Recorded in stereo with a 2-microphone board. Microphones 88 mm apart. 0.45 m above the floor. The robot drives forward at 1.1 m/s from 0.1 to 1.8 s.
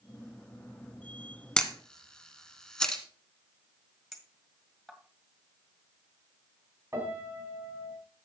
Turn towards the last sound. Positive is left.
turn(degrees=-30)  # may be behind; listen again after turning